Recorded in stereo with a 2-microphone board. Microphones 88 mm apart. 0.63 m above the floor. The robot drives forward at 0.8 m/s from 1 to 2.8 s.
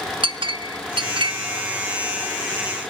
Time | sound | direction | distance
0.2 | a clink | 75° right (ahead or behind) | 0.6 m